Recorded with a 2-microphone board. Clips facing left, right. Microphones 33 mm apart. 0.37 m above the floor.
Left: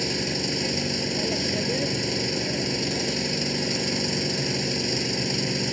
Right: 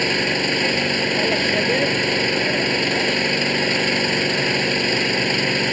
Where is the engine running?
50° right (ahead or behind).